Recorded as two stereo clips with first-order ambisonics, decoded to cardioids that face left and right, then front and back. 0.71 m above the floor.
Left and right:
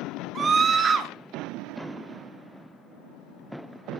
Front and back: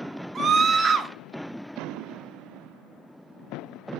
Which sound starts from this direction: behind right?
A scream, at 0.3 s.